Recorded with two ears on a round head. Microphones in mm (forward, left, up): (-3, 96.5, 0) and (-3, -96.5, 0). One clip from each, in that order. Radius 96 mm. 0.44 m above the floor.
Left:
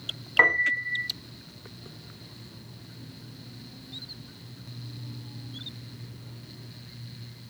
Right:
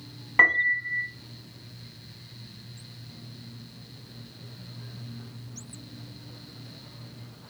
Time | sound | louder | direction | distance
0.4 | a piano | right 1 dB | centre (ahead or behind) | 0.6 m